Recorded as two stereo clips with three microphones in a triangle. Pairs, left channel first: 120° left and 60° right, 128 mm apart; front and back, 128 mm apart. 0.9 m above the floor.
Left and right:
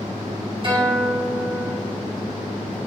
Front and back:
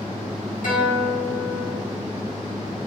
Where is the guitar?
15° right, 4 m.